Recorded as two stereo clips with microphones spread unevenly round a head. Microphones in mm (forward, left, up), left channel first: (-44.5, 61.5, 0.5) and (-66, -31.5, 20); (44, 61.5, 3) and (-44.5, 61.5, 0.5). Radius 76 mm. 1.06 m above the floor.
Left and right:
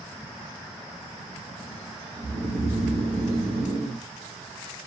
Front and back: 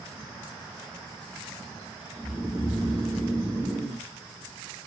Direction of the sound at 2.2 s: 105° right.